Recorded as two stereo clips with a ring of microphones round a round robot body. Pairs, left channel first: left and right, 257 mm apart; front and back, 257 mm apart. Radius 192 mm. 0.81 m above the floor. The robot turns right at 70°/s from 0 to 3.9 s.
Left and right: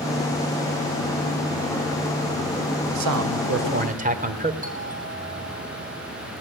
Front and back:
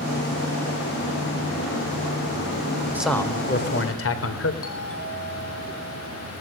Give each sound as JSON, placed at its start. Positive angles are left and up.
{"t": 3.0, "sound": "a man speaking", "azimuth_deg": -95, "distance_m": 3.0}
{"t": 4.6, "sound": "a doorbell", "azimuth_deg": -30, "distance_m": 8.0}